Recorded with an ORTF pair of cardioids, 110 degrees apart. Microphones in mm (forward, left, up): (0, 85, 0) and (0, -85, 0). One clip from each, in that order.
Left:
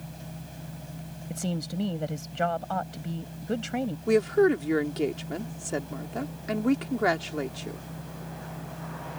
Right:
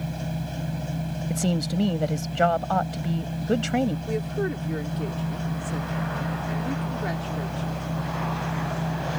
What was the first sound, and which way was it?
A machine running, 60° right.